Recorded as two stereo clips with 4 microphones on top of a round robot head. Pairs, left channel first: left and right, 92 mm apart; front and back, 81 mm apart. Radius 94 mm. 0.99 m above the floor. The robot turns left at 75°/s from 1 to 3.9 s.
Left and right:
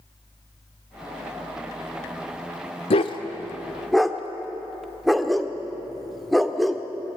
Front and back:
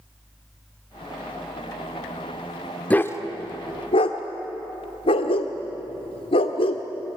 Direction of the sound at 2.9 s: 75° left.